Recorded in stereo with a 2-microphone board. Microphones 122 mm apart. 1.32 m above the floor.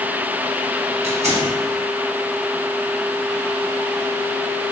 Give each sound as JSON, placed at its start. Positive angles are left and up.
{"t": 1.0, "sound": "tearing paper", "side_deg": -60, "distance_m": 1.9}